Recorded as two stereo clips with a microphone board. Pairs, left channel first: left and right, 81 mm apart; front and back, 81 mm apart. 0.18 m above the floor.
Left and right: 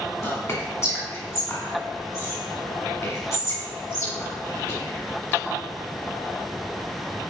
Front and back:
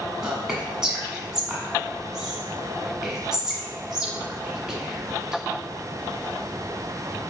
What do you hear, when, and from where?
0.2 s whispering: 105° left, 1.6 m